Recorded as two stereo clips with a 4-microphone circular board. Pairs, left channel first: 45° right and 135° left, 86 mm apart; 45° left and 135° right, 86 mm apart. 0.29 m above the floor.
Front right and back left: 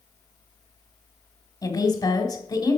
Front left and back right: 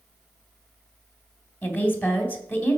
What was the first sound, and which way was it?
A woman speaking, 20° right.